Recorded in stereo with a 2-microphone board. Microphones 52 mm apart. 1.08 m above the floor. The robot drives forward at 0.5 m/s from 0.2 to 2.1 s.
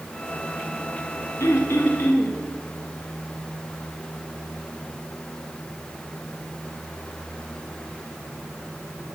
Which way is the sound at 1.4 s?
70° left (ahead or behind).